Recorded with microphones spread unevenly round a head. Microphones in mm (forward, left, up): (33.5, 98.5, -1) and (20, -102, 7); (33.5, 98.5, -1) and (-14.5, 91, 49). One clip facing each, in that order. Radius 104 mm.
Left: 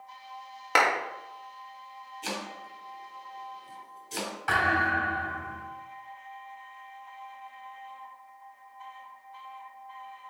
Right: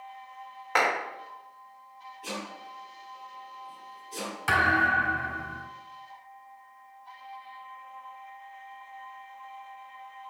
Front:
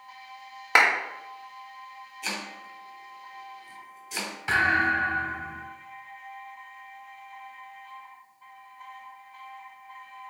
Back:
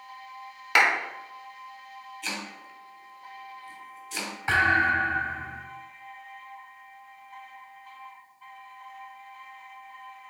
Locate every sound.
0.8 s a clap: 50° left, 1.9 m
2.2 s chopping: 95° left, 3 m
4.5 s a thud: 130° right, 3 m